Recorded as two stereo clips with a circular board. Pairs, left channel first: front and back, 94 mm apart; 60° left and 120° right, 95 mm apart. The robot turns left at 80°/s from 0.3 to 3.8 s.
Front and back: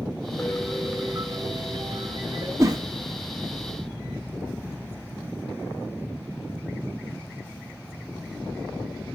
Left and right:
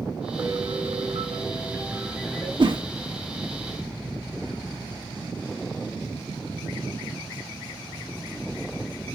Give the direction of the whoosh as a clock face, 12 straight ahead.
4 o'clock.